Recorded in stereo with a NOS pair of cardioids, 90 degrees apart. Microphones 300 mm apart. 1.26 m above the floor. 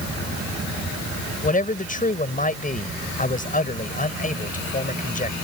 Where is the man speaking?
25° left.